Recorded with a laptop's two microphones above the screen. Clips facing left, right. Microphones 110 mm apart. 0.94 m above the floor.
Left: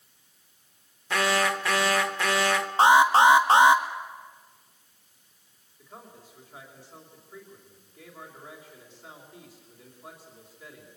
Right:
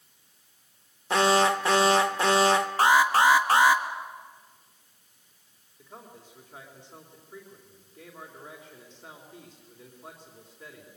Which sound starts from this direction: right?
An alarm, at 1.1 s.